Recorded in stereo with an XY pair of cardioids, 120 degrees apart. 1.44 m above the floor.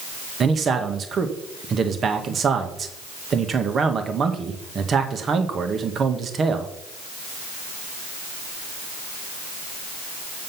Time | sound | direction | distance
0.4 | a man speaking | 40° right | 1.2 m